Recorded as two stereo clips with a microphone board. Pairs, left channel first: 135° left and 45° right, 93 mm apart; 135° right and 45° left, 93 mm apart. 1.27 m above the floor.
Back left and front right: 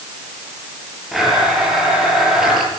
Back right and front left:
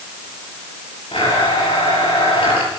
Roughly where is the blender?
Behind right.